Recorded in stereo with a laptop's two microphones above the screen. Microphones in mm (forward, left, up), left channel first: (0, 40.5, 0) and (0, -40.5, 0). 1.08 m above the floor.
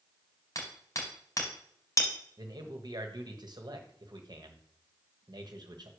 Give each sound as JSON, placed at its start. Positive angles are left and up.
{"t": 0.6, "sound": "hammering", "side_deg": 45, "distance_m": 3.5}
{"t": 2.4, "sound": "a man speaking", "side_deg": -60, "distance_m": 1.1}